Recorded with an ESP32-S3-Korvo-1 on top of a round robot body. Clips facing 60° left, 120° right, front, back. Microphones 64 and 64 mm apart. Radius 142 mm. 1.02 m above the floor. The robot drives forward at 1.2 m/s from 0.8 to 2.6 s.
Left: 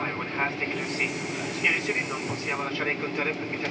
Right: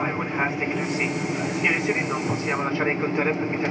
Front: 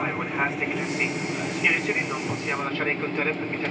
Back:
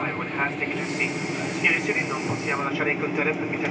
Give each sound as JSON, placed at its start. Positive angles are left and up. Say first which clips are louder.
{"t": 0.0, "sound": "an aircraft", "louder": "right 4 dB, front 1 dB", "azimuth_deg": -80}